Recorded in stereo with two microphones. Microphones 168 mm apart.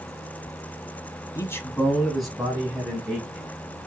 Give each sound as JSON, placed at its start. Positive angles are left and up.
{"t": 1.4, "sound": "a man speaking", "side_deg": 20, "distance_m": 1.0}